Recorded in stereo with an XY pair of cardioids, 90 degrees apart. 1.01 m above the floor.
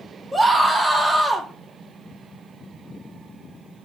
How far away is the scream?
About 3.5 m.